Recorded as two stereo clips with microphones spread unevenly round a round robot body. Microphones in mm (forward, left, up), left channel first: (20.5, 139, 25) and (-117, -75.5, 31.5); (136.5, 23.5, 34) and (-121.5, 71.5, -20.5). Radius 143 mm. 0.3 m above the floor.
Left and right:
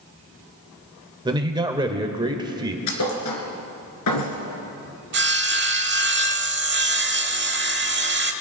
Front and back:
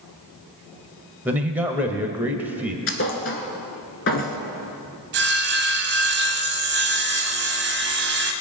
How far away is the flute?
No flute in this recording.